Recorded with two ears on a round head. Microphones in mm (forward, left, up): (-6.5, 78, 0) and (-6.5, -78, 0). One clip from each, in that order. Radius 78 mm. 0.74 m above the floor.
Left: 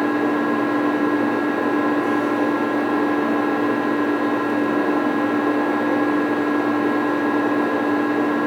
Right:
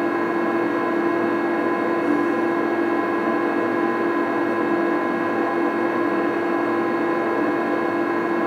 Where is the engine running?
60° left (ahead or behind), 1.8 m.